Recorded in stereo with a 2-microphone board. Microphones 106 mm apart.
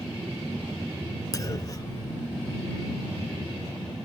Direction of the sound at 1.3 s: 35° left (ahead or behind).